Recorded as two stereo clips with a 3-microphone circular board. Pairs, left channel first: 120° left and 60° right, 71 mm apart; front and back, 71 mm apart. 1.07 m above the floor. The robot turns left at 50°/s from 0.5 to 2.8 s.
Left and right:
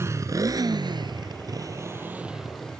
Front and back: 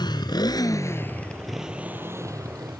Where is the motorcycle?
10° right; by 2.8 s 165° right.